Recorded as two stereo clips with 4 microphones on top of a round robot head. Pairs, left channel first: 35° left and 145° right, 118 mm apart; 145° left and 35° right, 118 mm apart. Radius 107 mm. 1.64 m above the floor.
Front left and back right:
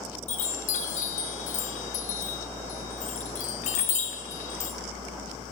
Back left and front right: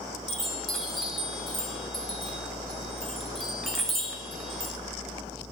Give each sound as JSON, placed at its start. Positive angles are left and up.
{"t": 0.3, "sound": "a chime", "azimuth_deg": 55, "distance_m": 0.6}